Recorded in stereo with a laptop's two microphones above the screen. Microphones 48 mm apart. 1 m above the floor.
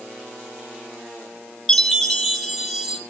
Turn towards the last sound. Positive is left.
turn(degrees=5)  # may be behind; listen again after turning